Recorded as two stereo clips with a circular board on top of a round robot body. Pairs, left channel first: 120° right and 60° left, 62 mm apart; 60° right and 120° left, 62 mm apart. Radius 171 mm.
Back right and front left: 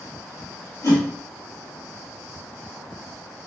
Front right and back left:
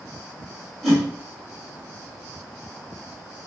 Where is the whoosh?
150° right, 2 m.